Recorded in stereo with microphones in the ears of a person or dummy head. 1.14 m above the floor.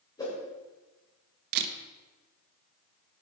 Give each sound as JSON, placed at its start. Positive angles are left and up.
{"t": 0.2, "sound": "a whoosh", "side_deg": 15, "distance_m": 3.5}
{"t": 1.5, "sound": "a camera shutter", "side_deg": -50, "distance_m": 0.9}